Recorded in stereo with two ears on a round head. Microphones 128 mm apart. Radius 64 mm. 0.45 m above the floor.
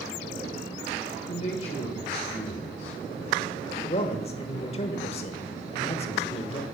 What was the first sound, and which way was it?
A man speaking, 55° left (ahead or behind).